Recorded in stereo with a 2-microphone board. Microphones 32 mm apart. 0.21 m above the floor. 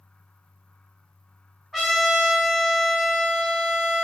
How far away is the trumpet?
About 1.3 m.